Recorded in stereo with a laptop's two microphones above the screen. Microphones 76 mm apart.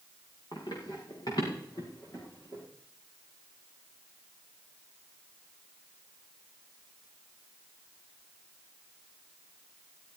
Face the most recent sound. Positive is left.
turn(degrees=45)  # may be behind; listen again after turning